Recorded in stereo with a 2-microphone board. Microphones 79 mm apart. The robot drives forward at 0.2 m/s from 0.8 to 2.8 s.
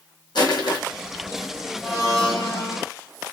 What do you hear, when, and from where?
0.3 s crushing: 65° left (ahead or behind), 0.8 m
1.8 s a blender: 10° left (ahead or behind), 1.2 m